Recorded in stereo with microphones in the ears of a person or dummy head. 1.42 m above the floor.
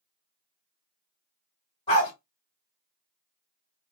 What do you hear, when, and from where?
1.9 s a dog barking: 20° left (ahead or behind), 1.9 m